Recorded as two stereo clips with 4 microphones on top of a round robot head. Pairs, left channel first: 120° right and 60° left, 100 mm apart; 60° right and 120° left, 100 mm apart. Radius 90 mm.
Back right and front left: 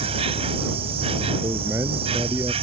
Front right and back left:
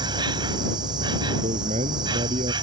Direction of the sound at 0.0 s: 80° left.